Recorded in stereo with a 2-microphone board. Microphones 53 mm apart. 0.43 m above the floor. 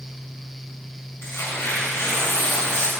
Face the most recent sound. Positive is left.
turn(degrees=65)  # may be behind; listen again after turning